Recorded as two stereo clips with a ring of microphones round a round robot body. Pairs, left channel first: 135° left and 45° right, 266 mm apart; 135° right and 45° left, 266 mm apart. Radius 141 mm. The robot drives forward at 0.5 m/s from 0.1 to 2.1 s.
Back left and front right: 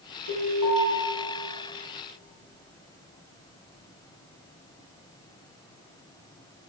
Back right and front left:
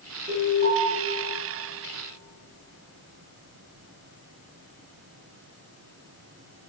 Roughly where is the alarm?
Left.